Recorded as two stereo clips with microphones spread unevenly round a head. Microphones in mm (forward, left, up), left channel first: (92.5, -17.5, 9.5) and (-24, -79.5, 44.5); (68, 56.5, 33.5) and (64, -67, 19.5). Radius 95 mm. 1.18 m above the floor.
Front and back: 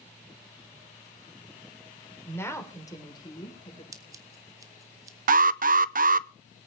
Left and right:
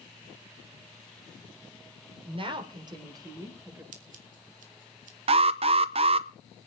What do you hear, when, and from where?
2.2 s a woman speaking: 50° right, 3.5 m; by 3.8 s 25° right, 5 m
3.9 s scissors: 85° right, 2 m
5.3 s an alarm: 130° right, 0.6 m